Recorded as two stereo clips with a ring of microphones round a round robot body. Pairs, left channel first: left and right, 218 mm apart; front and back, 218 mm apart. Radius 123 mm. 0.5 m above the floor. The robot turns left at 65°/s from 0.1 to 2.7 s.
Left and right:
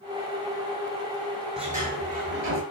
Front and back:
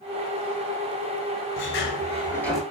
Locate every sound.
1.6 s a sliding door: 25° right, 8.5 m; by 2.6 s 95° right, 8.5 m